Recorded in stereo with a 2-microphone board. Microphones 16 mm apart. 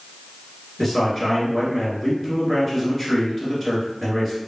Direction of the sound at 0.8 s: 5° left (ahead or behind).